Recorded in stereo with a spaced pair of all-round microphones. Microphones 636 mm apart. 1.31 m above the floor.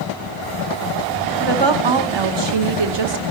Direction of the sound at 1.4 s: 40° right (ahead or behind).